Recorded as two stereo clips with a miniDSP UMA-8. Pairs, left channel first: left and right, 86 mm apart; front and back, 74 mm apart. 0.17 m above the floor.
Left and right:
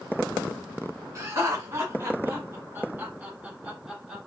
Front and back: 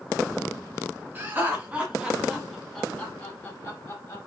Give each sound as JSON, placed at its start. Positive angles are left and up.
{"t": 1.1, "sound": "laughter", "azimuth_deg": -130, "distance_m": 1.8}